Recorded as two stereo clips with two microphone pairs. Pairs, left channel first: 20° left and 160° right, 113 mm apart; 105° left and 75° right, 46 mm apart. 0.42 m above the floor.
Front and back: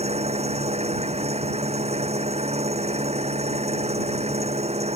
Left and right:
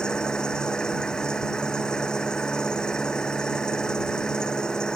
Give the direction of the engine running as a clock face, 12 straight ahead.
6 o'clock.